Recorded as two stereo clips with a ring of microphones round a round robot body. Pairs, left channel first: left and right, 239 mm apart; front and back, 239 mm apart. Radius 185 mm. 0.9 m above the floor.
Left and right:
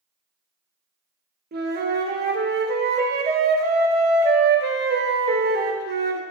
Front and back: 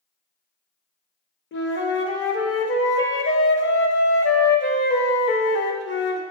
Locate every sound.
1.5 s a flute: 40° right, 0.8 m